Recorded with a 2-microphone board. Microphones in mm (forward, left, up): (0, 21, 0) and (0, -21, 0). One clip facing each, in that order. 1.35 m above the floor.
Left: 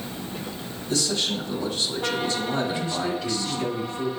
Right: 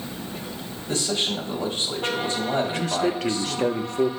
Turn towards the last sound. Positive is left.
turn(degrees=-65)  # may be behind; listen again after turning